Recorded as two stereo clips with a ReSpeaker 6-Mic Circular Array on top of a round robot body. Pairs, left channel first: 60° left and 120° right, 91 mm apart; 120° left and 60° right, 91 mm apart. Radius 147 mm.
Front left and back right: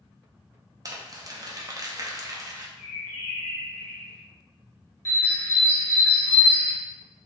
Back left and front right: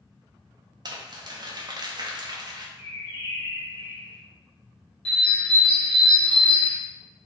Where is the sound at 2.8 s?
155° left, 0.9 m.